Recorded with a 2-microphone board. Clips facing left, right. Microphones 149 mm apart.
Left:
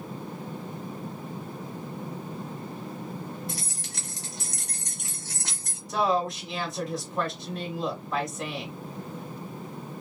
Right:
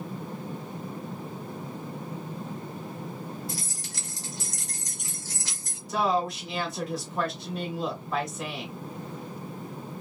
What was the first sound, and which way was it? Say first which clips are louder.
Keys jangling: even; 60° left (ahead or behind).